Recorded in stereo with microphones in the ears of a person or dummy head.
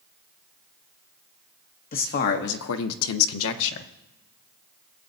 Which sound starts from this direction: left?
A man speaking, at 1.9 s.